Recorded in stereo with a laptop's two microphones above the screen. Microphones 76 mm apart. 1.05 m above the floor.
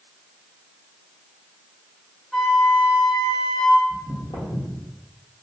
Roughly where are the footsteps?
Left.